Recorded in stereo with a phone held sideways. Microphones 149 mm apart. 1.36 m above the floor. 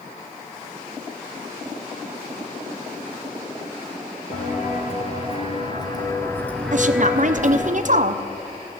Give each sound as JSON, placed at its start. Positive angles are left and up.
{"t": 4.3, "sound": "footsteps", "side_deg": 55, "distance_m": 2.5}
{"t": 6.7, "sound": "a woman speaking", "side_deg": -55, "distance_m": 0.6}